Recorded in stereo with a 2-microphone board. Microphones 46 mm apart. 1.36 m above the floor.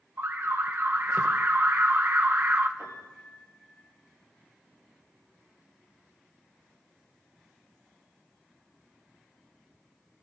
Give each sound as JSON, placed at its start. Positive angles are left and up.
{"t": 0.2, "sound": "an alarm", "side_deg": -50, "distance_m": 0.9}
{"t": 2.8, "sound": "a piano", "side_deg": -50, "distance_m": 6.0}